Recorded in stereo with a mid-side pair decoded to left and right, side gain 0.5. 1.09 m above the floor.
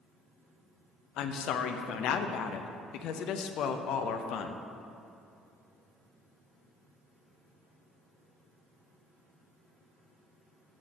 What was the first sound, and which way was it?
A woman speaking, 70° left.